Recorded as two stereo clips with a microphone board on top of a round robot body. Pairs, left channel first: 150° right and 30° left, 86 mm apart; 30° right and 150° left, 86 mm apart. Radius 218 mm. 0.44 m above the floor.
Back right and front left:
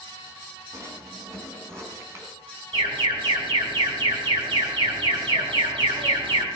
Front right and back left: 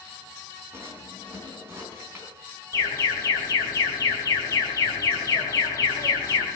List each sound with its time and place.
0.7 s a drawer: 85° left, 4 m
2.7 s an alarm: 20° left, 4 m